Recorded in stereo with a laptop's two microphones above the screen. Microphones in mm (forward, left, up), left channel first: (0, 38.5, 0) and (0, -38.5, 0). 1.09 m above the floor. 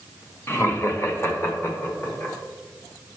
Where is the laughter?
30° left (ahead or behind), 0.8 m; by 2.4 s 25° left (ahead or behind), 1.4 m.